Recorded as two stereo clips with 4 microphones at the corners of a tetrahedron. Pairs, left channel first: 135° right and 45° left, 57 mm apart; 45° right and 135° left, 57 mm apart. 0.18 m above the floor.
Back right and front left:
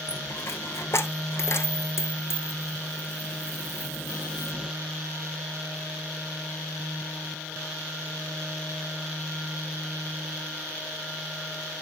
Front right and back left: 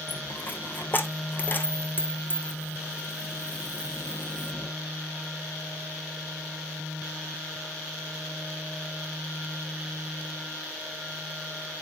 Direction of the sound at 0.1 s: 100° right.